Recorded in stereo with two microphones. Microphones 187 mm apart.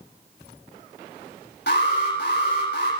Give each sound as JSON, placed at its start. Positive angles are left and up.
{"t": 1.7, "sound": "an alarm", "side_deg": 75, "distance_m": 9.5}